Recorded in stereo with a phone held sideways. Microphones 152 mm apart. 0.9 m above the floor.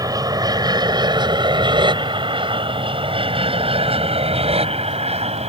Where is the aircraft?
25° right (ahead or behind); by 5.5 s 45° right (ahead or behind).